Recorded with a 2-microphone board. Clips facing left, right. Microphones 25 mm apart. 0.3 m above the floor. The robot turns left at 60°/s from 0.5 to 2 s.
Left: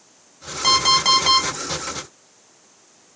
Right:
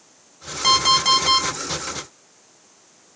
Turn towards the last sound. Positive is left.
turn(degrees=100)